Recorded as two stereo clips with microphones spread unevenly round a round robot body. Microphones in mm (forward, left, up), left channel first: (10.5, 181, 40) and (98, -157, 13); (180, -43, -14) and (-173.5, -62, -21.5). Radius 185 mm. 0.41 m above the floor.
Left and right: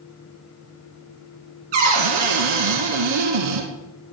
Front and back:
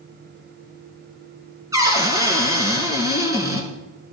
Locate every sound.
1.7 s a cupboard door: 95° right, 3 m